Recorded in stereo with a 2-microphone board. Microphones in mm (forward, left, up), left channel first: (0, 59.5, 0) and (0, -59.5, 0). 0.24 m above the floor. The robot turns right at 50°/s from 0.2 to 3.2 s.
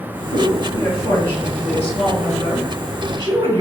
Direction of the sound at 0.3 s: 105° left.